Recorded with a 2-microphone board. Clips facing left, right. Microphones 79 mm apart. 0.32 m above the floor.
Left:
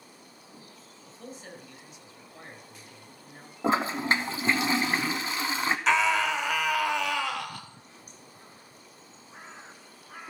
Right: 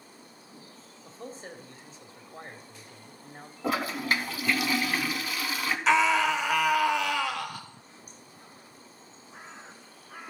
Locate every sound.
1.1 s a man speaking: 35° right (ahead or behind), 1.8 m
3.6 s a toilet flushing: 30° left (ahead or behind), 0.8 m
5.9 s a scream: centre (ahead or behind), 1.1 m